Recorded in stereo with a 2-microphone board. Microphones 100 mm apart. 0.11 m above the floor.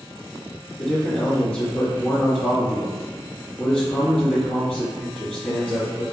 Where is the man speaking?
5° left (ahead or behind), 1.8 m.